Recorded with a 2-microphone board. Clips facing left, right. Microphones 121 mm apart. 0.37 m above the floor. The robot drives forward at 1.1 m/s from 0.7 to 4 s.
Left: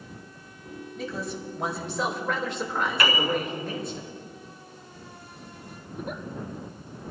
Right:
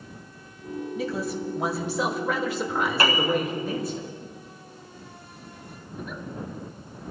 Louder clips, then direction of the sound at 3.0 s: Right 2 dB; 35° right (ahead or behind).